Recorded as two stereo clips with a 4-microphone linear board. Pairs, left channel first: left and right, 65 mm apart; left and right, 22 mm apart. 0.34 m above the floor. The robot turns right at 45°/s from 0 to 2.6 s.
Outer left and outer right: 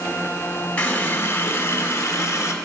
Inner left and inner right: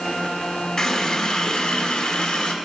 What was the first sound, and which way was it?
A running tap, 25° left.